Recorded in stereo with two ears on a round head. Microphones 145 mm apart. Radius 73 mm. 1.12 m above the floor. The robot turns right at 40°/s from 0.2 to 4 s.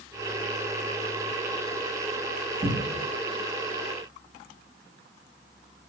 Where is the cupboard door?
40° right (ahead or behind), 1.3 m; by 3.0 s 25° right (ahead or behind), 1.3 m.